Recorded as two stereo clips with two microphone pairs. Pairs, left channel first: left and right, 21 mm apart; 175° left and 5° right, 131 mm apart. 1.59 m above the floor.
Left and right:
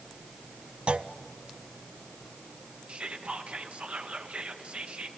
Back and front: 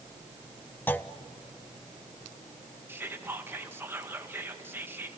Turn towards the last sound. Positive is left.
turn(degrees=-80)